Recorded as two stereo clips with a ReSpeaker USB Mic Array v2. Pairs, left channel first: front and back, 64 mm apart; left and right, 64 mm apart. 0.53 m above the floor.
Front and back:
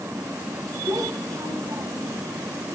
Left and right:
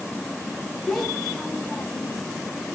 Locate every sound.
0.9 s a child speaking: 175° left, 4.5 m; by 2.2 s 155° left, 3 m